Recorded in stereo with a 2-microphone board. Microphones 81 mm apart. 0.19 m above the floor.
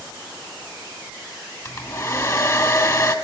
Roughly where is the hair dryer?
Left.